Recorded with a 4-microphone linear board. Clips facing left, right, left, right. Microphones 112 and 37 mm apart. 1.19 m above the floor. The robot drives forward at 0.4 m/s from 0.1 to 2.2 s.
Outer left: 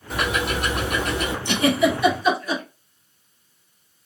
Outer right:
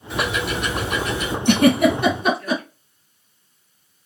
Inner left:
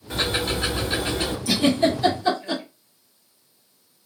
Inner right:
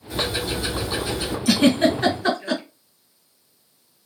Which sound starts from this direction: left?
Ticking, at 0.1 s.